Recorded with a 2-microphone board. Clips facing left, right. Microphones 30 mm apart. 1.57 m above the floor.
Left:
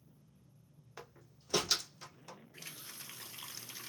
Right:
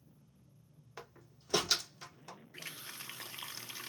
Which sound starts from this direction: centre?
A door slam, at 1.0 s.